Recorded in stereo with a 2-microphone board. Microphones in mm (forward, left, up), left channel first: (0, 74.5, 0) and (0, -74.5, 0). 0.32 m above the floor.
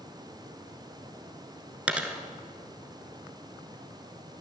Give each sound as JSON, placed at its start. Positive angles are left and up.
{"t": 1.9, "sound": "a dropped coin", "side_deg": -10, "distance_m": 0.9}